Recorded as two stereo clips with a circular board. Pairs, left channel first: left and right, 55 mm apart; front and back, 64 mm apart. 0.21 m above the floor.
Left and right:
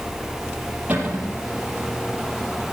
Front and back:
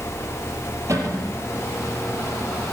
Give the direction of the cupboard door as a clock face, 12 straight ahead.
5 o'clock.